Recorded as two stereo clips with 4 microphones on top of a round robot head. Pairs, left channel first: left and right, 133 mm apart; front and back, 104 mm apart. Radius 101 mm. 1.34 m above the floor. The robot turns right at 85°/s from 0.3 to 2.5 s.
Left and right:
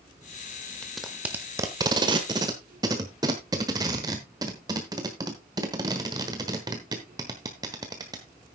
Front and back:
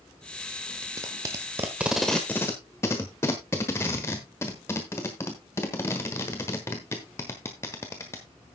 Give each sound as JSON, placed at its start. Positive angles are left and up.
{"t": 0.8, "sound": "tape being pulled", "azimuth_deg": 165, "distance_m": 1.1}